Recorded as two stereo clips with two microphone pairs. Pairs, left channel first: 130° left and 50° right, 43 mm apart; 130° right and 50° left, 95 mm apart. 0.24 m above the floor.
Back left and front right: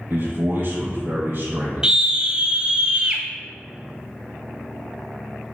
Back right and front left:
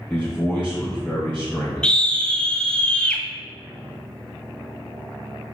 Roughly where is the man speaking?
Ahead right.